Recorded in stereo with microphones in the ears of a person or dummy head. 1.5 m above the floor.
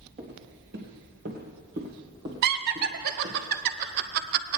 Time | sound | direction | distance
0.2 | footsteps | 35° right (ahead or behind) | 1.9 m
2.4 | laughter | 60° right (ahead or behind) | 0.8 m